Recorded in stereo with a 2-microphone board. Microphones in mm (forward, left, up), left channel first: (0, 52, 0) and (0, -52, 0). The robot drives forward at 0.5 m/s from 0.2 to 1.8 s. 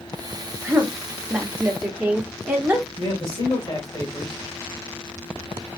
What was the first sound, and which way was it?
A woman speaking, 15° right (ahead or behind).